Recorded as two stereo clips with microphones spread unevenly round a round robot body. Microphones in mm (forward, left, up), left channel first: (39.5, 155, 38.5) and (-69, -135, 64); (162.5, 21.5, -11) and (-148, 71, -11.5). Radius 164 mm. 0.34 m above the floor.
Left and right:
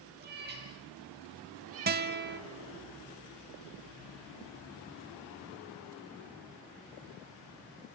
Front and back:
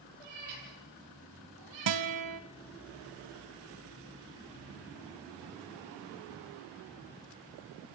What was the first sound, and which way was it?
A cat meowing, 170° right.